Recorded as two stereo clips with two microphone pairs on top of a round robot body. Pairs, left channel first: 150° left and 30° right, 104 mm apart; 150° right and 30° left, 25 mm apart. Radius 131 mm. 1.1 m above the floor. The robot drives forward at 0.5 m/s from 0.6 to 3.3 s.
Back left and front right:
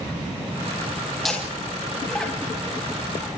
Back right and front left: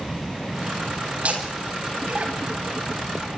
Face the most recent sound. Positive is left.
turn(degrees=65)